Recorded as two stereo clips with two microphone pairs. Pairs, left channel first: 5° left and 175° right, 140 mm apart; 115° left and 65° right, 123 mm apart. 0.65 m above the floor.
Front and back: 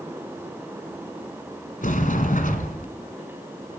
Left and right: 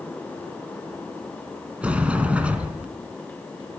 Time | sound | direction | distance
1.8 | a sliding door | 10° left | 1.7 m